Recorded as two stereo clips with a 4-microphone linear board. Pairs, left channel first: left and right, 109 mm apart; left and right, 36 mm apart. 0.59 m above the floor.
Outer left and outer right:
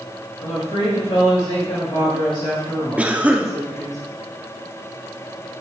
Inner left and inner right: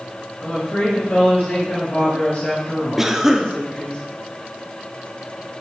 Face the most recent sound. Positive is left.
turn(degrees=-15)  # may be behind; listen again after turning